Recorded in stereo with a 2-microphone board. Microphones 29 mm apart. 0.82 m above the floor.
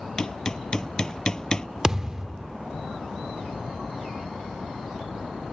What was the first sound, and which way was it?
Hammering, 25° left (ahead or behind).